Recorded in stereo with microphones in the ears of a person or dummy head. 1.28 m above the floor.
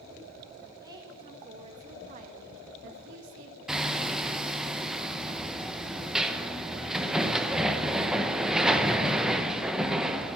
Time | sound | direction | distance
0.8 | a woman speaking | 25° right (ahead or behind) | 2.5 m
3.7 | hammering | centre (ahead or behind) | 0.8 m